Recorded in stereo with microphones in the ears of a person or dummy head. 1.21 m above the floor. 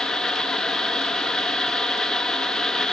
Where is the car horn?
I don't hear a car horn.